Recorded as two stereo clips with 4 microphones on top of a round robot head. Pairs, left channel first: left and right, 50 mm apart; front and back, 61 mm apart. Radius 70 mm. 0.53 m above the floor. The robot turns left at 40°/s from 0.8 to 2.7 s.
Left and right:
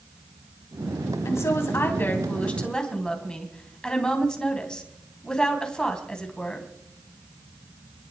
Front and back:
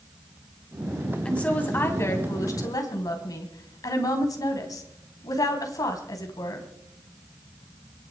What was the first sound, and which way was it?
A woman speaking, 75° left.